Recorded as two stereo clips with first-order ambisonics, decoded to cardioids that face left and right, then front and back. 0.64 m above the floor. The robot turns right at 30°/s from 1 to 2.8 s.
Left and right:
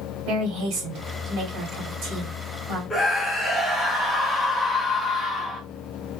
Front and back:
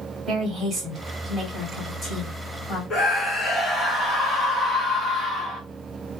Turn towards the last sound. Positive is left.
turn(degrees=40)